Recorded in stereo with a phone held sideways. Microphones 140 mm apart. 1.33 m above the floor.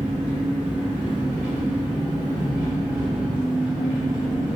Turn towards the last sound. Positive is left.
turn(degrees=-10)  # may be behind; listen again after turning